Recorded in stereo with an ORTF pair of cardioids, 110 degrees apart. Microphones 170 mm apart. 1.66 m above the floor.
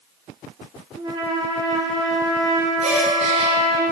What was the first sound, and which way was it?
A trumpet, 25° right.